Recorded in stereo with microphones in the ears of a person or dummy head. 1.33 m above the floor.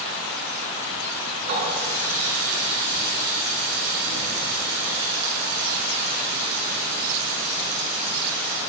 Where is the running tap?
50° right (ahead or behind), 10 m.